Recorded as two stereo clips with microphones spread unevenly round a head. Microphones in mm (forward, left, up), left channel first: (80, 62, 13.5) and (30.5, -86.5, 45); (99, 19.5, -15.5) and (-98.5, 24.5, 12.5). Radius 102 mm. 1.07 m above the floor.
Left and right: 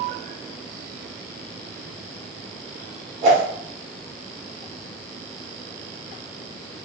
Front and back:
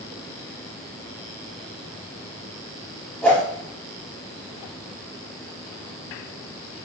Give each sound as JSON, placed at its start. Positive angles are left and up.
{"t": 3.2, "sound": "a whoosh", "azimuth_deg": -90, "distance_m": 1.4}